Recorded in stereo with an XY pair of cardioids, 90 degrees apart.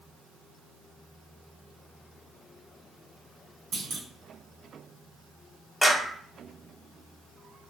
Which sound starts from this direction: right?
A clunk, at 3.7 s.